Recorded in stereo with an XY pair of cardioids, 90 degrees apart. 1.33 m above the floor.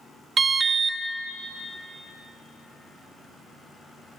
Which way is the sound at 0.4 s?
45° right.